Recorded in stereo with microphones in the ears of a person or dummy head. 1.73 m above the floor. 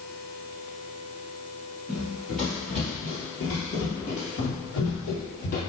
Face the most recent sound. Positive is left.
turn(degrees=45)  # may be behind; listen again after turning